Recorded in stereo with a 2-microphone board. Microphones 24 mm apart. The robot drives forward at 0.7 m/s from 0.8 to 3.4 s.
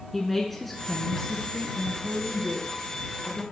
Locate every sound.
0.1 s a woman speaking: 10° left (ahead or behind), 1.5 m; by 3.4 s 5° left (ahead or behind), 3 m